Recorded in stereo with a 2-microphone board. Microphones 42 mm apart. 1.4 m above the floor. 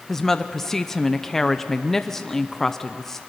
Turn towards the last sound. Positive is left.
turn(degrees=10)  # may be behind; listen again after turning